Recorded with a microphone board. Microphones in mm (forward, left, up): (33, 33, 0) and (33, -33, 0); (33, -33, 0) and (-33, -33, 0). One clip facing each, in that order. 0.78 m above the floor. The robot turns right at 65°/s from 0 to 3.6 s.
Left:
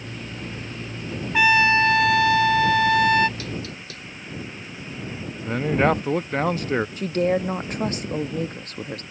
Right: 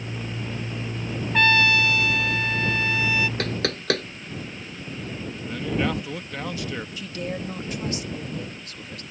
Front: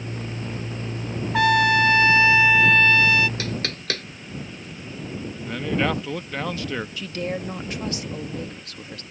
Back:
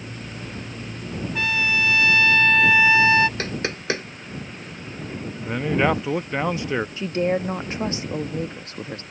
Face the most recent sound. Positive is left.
turn(degrees=125)